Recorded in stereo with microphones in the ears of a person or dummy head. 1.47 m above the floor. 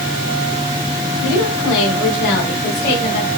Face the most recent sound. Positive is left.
turn(degrees=60)  # may be behind; listen again after turning